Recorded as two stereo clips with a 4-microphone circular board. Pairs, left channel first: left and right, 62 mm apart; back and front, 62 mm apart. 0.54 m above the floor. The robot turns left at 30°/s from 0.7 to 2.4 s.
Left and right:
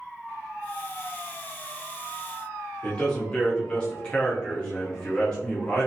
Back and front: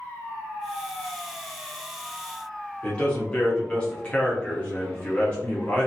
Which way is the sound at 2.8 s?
135° left.